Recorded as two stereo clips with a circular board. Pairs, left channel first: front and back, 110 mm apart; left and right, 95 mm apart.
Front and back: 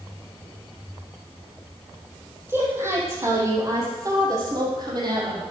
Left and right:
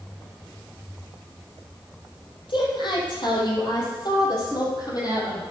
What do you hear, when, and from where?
2.5 s a woman speaking: 110° left, 4.5 m; by 5.4 s 135° left, 4 m